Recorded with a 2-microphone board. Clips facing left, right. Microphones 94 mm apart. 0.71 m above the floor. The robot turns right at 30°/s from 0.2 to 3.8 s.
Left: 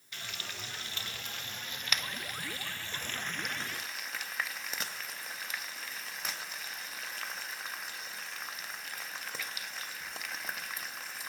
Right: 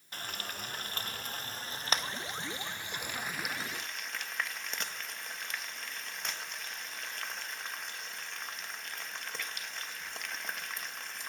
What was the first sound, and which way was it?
Frying, 45° right (ahead or behind).